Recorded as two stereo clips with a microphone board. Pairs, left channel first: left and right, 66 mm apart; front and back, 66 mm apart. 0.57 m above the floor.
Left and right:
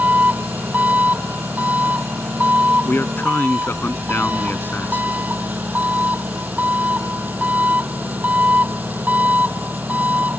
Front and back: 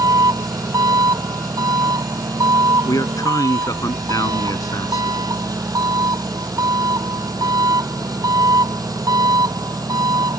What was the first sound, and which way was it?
An engine running, 155° right.